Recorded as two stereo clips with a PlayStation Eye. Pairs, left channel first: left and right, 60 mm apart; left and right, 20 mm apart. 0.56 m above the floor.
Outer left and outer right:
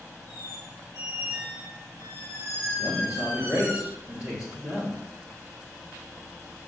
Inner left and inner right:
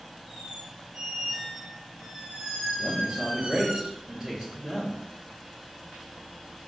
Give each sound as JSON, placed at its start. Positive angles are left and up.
{"t": 0.3, "sound": "a squeak", "side_deg": -45, "distance_m": 3.5}
{"t": 2.8, "sound": "a man speaking", "side_deg": -25, "distance_m": 1.5}